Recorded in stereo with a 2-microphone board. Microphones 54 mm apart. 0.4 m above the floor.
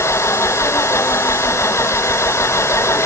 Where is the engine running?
60° left (ahead or behind).